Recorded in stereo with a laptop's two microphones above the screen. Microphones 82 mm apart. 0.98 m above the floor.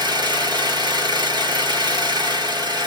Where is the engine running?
65° right (ahead or behind), 1.1 m.